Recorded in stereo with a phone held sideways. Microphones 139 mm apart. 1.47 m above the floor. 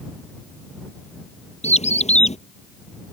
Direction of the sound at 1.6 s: 50° left (ahead or behind).